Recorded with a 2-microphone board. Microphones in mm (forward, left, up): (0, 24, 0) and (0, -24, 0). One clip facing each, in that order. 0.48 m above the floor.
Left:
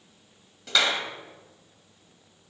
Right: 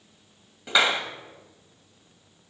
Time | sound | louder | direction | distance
0.7 | a clap | right 3 dB | 15° right (ahead or behind) | 1.7 m